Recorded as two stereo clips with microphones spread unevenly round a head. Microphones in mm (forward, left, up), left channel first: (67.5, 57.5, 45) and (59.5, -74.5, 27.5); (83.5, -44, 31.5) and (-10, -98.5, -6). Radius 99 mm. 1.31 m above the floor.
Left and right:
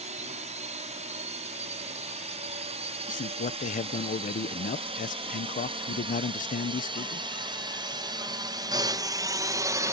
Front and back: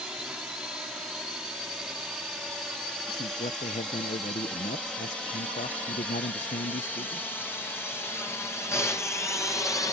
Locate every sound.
0.0 s a drone: 70° right; by 9.9 s 35° right
3.1 s a man speaking: 80° left